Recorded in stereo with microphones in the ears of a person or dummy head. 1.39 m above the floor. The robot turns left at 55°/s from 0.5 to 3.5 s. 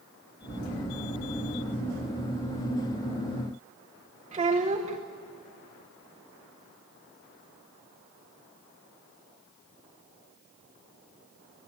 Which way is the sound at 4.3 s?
30° right (ahead or behind).